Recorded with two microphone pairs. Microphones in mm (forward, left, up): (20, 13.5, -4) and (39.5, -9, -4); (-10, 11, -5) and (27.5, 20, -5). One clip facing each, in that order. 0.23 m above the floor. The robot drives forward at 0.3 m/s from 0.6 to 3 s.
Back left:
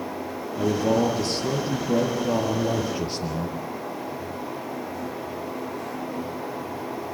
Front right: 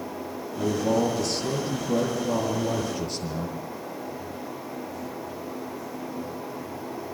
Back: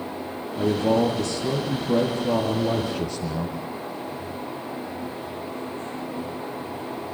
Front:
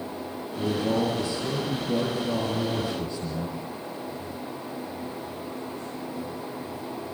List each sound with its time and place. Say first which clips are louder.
0.6 s a man speaking: back left 2 dB, back 5 dB; 165° right, 4.5 m; by 3.6 s 170° right, 5 m